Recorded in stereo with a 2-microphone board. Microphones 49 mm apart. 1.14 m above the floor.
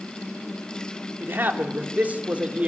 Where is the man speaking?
40° right (ahead or behind), 3 m; by 2.7 s 25° right (ahead or behind), 3.5 m.